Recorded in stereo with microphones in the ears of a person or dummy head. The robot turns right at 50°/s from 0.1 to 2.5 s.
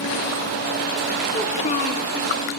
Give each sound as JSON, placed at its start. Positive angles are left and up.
{"t": 1.3, "sound": "a child speaking", "azimuth_deg": 20, "distance_m": 2.0}